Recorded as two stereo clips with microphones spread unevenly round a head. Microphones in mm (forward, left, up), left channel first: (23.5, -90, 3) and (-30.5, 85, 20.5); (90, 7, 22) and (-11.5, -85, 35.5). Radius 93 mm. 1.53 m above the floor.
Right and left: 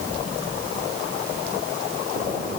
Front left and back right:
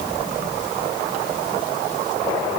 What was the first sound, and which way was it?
Only background noise.